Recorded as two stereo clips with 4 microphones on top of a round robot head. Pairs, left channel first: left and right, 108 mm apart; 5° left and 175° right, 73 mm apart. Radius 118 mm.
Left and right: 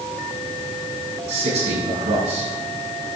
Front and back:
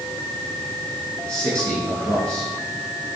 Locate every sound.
1.3 s a man speaking: 70° right, 6.5 m